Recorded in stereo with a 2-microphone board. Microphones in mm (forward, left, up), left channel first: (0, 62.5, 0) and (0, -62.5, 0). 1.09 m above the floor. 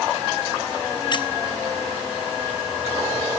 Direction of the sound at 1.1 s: 40° left (ahead or behind).